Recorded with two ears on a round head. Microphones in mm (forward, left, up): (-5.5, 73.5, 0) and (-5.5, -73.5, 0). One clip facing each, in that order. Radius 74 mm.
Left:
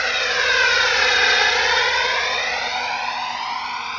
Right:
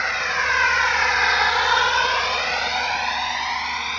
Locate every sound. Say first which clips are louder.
0.0 s a drone: left 3 dB; 40° left (ahead or behind); by 4.0 s 10° right (ahead or behind)